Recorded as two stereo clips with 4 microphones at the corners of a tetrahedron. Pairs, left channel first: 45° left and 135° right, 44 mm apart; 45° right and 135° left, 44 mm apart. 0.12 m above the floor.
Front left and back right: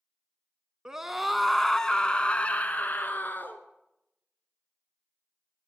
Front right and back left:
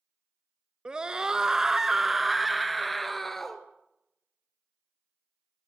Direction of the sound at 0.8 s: 165° left.